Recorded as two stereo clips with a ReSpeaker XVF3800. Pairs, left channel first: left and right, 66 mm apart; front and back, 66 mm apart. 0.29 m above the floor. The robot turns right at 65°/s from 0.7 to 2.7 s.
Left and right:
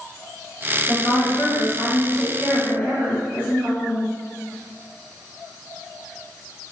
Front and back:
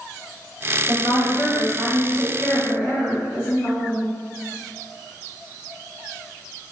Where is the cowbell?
No cowbell in this recording.